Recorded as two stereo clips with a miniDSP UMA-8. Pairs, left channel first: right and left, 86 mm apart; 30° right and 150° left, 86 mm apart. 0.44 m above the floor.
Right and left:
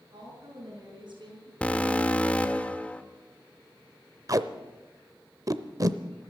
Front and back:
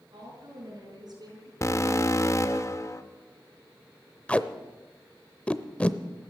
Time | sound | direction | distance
0.1 | a woman speaking | 120° left | 6 m
1.6 | an alarm | 25° right | 0.9 m
4.3 | tape being pulled | 45° left | 0.7 m